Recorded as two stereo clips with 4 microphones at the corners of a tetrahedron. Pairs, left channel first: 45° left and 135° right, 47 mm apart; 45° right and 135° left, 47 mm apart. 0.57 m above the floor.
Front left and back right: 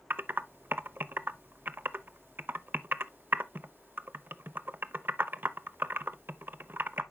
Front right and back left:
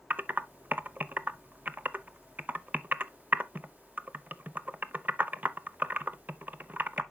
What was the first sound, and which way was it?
Typing on a keyboard, 175° right.